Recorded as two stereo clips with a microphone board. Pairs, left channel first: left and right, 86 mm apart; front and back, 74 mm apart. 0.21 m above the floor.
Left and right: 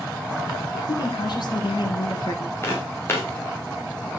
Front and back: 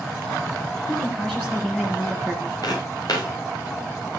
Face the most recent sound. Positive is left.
turn(degrees=30)